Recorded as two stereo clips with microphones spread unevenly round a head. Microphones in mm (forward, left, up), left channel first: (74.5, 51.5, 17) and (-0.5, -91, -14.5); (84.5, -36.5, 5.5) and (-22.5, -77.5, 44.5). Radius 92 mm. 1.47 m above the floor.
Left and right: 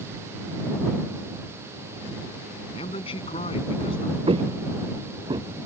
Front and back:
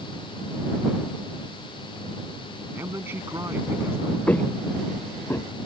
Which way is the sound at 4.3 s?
60° right.